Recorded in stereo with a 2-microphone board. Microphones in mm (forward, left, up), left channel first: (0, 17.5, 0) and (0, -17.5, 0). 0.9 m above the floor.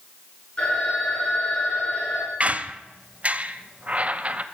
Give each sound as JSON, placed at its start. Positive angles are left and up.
{"t": 0.6, "sound": "a phone ringing", "side_deg": 35, "distance_m": 8.5}
{"t": 2.4, "sound": "a squeak", "side_deg": -35, "distance_m": 0.8}